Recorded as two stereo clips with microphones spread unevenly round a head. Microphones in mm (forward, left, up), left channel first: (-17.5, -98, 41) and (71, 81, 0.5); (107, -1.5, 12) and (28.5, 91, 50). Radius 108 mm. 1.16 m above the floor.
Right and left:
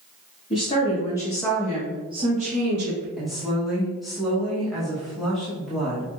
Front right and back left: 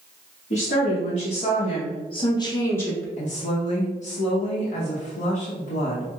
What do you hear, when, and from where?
0.5 s a woman speaking: 55° right, 1.1 m; by 3.1 s 30° left, 0.9 m
3.2 s a woman speaking: 25° right, 0.8 m